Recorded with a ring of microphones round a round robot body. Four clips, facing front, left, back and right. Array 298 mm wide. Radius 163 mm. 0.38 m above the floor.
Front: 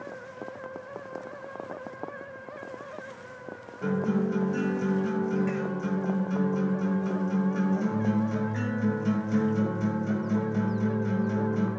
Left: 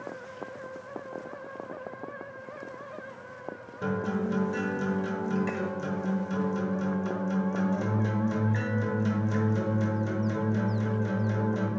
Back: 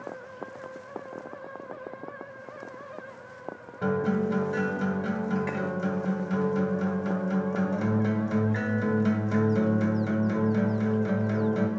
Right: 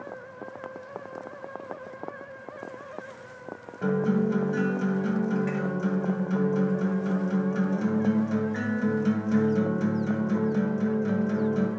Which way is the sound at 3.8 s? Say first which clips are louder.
Right 5 dB, back 1 dB; 170° left.